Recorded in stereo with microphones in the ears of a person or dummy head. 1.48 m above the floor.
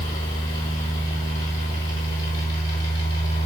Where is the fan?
20° left (ahead or behind), 3.5 m.